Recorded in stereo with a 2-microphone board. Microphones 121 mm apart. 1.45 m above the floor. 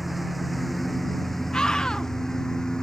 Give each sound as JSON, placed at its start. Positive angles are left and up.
{"t": 0.0, "sound": "a lawn mower", "side_deg": 0}
{"t": 1.5, "sound": "a scream", "side_deg": 5}